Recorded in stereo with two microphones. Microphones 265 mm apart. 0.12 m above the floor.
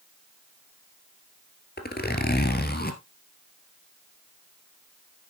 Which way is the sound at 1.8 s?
40° left (ahead or behind).